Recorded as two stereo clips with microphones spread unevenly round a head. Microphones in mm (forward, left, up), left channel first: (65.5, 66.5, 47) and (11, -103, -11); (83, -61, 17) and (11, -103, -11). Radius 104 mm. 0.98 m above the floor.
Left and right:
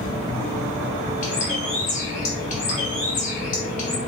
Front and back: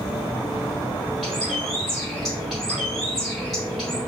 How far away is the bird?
About 1.2 m.